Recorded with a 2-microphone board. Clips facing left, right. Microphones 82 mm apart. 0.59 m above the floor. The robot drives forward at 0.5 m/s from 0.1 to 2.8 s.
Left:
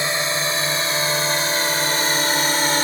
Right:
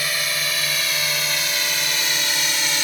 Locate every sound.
0.0 s a drone: 30° left (ahead or behind); by 2.8 s 40° left (ahead or behind)